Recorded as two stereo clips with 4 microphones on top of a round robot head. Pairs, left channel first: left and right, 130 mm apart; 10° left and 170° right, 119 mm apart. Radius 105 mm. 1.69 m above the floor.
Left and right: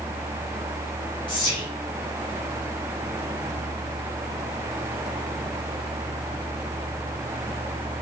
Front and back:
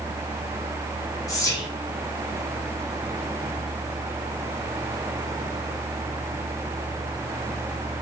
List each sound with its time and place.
1.3 s whispering: 55° left, 0.6 m